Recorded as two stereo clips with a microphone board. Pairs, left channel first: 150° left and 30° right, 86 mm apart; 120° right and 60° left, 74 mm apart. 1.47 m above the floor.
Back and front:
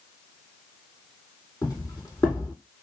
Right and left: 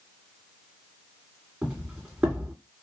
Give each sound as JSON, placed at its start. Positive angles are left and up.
{"t": 1.6, "sound": "footsteps", "azimuth_deg": 135, "distance_m": 2.0}